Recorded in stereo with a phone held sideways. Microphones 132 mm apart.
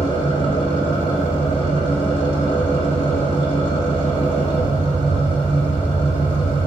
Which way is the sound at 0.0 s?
40° left (ahead or behind).